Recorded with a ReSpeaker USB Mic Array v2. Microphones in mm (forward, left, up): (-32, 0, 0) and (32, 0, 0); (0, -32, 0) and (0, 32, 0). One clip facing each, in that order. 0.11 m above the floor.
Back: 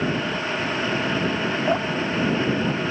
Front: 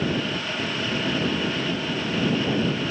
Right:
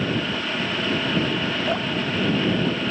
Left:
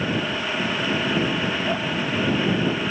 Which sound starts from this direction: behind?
Dripping, at 1.7 s.